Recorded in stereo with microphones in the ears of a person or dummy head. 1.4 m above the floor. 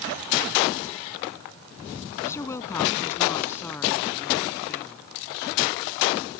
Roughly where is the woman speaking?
Centre.